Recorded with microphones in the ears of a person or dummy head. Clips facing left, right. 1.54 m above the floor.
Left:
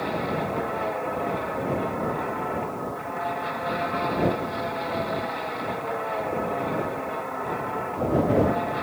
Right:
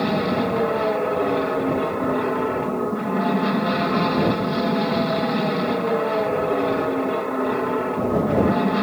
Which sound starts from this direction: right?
An aircraft, at 0.0 s.